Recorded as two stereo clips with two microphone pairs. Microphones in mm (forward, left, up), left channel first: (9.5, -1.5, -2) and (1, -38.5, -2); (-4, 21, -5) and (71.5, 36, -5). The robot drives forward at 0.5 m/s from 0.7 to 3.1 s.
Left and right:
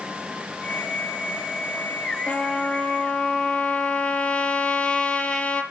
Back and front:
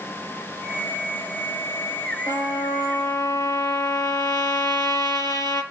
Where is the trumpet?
145° left, 3.5 m; by 5.6 s 150° left, 4 m.